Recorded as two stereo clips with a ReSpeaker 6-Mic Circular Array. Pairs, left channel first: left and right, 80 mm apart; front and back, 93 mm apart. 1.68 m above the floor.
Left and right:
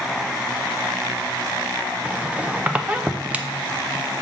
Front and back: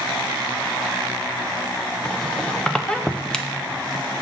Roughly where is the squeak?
Ahead right.